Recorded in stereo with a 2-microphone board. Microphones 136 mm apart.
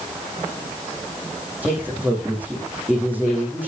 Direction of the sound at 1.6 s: 10° right (ahead or behind).